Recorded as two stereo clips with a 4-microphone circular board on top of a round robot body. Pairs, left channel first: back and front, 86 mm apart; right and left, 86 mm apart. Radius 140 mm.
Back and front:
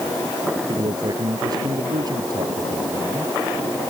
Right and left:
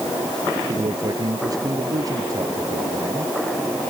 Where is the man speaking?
45° left; by 3.3 s 40° left.